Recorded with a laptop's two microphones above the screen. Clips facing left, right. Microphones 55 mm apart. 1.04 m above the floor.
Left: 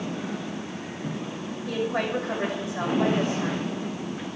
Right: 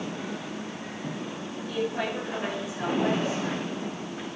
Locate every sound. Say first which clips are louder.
1.7 s a woman speaking: left 3 dB; 80° left, 5.5 m